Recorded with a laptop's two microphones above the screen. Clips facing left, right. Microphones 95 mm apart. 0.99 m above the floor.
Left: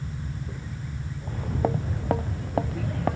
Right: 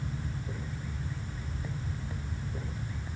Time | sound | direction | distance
1.2 | footsteps | 70° left (ahead or behind) | ?